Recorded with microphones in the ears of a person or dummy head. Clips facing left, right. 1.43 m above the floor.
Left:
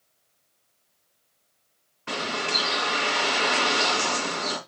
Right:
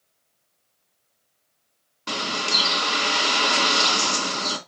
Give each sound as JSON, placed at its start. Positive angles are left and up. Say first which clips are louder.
{"t": 2.1, "sound": "a bird", "louder": "even", "side_deg": -60, "distance_m": 3.0}